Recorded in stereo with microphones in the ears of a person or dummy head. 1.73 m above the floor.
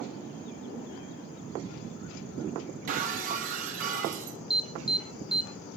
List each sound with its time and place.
2.9 s breaking glass: 40° right (ahead or behind), 1.5 m
4.5 s an alarm: centre (ahead or behind), 1.5 m